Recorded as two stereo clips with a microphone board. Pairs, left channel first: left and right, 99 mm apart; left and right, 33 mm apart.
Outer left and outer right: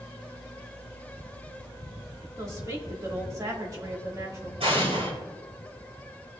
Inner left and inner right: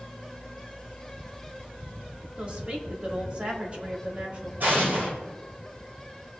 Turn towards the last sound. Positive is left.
turn(degrees=-75)  # may be behind; listen again after turning